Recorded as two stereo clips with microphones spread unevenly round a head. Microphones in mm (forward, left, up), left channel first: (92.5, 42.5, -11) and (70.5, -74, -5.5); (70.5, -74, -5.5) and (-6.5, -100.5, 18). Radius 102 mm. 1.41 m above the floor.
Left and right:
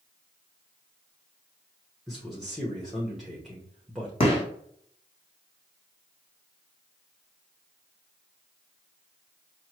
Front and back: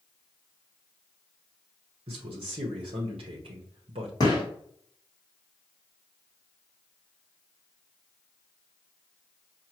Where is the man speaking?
170° left, 0.8 m.